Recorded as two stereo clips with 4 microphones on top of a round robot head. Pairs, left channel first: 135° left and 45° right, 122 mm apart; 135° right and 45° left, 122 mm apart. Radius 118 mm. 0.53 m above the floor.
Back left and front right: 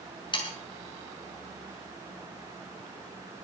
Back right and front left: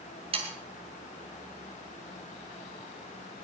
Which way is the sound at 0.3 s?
85° left.